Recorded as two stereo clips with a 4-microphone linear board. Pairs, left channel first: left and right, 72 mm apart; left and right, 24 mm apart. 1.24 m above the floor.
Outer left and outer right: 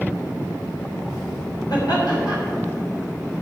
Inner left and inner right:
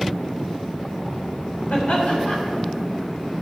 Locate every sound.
1.7 s laughter: 70° left (ahead or behind), 3.5 m